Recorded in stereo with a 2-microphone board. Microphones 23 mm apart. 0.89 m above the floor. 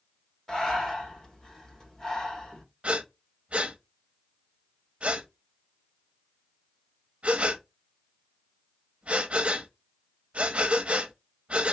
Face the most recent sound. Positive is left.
turn(degrees=-60)  # may be behind; listen again after turning